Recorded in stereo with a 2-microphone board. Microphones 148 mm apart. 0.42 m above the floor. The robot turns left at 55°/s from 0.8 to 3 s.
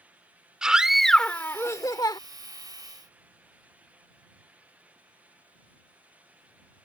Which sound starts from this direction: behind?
A scream, at 0.6 s.